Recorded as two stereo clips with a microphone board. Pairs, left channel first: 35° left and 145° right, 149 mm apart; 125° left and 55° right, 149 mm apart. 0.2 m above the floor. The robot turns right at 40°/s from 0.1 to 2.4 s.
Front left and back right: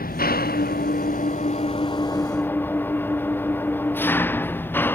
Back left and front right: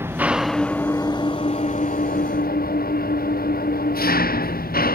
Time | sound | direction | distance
0.0 | an engine running | 20° left | ?